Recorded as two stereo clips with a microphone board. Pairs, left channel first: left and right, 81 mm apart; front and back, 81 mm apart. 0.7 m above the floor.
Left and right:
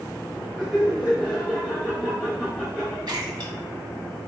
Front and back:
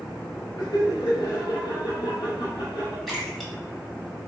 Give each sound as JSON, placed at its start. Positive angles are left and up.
{"t": 0.6, "sound": "laughter", "azimuth_deg": 25, "distance_m": 2.0}
{"t": 3.1, "sound": "a splash", "azimuth_deg": -90, "distance_m": 1.9}